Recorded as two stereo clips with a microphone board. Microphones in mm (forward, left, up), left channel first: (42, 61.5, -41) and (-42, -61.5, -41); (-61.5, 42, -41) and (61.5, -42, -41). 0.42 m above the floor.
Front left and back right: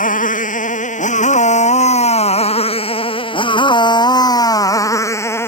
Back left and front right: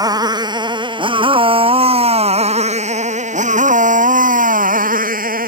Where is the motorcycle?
30° left; by 5.5 s 20° right.